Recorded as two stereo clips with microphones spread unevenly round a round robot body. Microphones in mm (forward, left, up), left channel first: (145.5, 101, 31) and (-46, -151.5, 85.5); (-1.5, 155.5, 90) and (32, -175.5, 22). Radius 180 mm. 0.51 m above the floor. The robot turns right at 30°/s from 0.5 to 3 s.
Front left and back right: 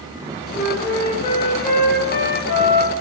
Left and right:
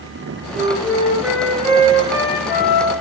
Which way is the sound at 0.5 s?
30° right.